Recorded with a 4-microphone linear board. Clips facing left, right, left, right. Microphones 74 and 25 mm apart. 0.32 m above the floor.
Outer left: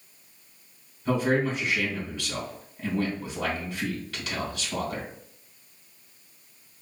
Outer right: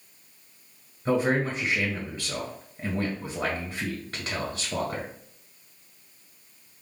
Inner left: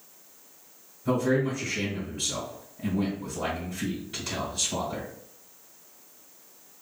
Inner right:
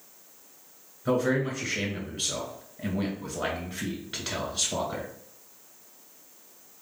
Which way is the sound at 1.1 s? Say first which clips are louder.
Even, inner left 1 dB; 40° right (ahead or behind).